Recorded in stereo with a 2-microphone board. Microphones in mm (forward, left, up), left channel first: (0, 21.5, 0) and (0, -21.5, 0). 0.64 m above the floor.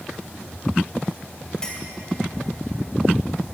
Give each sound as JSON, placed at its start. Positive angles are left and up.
{"t": 1.6, "sound": "a clink", "side_deg": 20, "distance_m": 1.8}